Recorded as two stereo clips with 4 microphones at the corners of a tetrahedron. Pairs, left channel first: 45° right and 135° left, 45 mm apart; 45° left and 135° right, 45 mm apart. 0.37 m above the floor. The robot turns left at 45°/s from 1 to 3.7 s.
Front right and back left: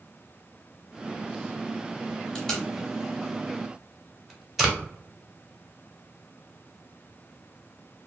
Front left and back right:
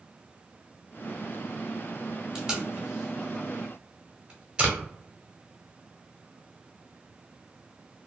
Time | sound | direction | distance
2.4 | tape being pulled | 90° right | 0.8 m